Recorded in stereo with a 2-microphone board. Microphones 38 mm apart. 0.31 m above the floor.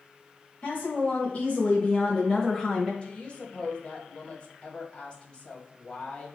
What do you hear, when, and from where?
0.6 s a woman speaking: 40° left (ahead or behind), 1.5 m; by 2.9 s 5° left (ahead or behind), 1.5 m
3.0 s a woman speaking: 30° left (ahead or behind), 1.3 m